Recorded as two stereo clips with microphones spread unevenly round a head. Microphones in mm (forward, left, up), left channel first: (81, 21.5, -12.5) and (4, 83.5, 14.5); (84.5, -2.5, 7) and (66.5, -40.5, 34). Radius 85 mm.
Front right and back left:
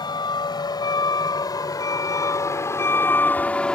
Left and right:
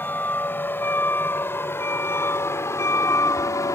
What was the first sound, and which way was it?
A vehicle, 10° left.